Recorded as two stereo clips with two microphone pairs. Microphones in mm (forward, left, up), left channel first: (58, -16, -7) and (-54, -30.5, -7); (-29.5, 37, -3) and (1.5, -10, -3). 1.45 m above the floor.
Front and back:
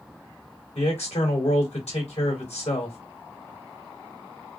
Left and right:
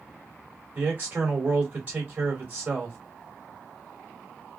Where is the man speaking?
Straight ahead, 2.5 m.